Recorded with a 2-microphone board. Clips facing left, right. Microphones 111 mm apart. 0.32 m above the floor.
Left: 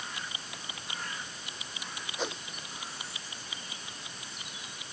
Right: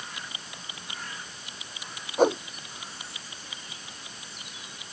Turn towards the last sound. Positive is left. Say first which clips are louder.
# right 15 dB
turn(degrees=-50)  # may be behind; listen again after turning